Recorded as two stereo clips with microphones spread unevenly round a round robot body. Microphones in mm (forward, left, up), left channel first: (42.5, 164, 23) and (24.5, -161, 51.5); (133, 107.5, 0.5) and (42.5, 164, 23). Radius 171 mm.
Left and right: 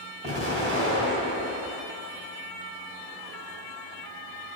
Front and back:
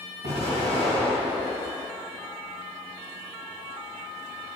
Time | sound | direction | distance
0.2 | an explosion | 165° right | 1.3 m